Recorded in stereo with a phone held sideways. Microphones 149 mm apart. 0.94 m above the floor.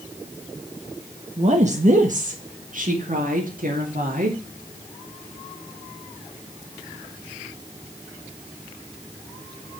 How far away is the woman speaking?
About 1.3 m.